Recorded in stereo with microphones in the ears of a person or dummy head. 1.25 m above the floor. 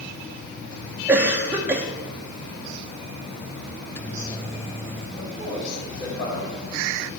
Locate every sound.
1.1 s a cough: 15° right (ahead or behind), 1.1 m
3.8 s a microwave: 15° left (ahead or behind), 0.6 m
5.2 s a man speaking: 20° left (ahead or behind), 5 m